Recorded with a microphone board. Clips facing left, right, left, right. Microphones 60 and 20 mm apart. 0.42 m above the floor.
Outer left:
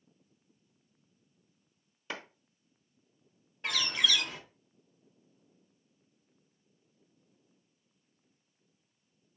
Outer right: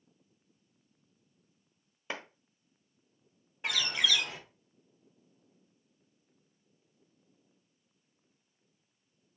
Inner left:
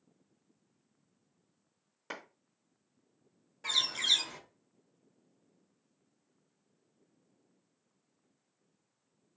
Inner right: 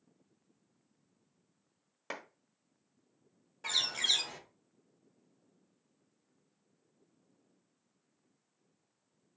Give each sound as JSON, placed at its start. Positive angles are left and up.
{"t": 2.1, "sound": "a clap", "side_deg": -20, "distance_m": 1.3}
{"t": 3.6, "sound": "a bird", "side_deg": -10, "distance_m": 1.3}